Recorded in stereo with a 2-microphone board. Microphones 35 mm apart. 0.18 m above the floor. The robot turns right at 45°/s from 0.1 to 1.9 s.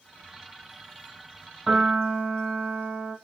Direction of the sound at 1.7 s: 5° right (ahead or behind).